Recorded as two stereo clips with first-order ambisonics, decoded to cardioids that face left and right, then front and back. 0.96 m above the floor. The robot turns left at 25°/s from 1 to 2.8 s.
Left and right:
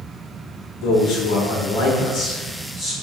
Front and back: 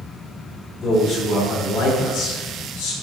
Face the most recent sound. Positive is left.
turn(degrees=20)